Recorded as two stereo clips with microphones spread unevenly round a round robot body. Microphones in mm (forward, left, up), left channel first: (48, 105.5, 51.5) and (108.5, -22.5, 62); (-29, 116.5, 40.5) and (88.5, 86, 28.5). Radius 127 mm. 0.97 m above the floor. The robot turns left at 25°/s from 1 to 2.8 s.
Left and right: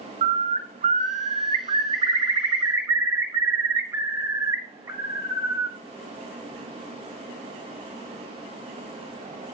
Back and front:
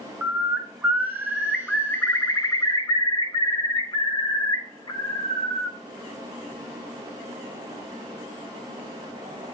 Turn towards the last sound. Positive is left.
turn(degrees=-135)